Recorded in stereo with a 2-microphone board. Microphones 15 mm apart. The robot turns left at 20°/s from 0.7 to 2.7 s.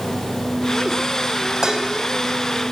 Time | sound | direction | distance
1.6 | dishes clattering | 40° right (ahead or behind) | 2.5 m